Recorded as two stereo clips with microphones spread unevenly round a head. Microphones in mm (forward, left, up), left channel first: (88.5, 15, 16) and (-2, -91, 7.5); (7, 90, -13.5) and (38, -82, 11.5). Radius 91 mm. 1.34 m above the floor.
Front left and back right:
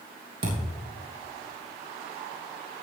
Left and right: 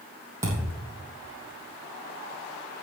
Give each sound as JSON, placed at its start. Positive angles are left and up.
{"t": 0.4, "sound": "a thud", "azimuth_deg": -150, "distance_m": 3.5}